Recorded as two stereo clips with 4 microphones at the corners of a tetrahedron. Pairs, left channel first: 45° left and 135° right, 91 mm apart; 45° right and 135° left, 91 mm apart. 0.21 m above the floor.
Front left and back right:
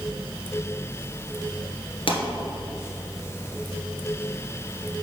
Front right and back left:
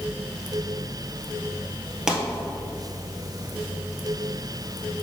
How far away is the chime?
I don't hear a chime.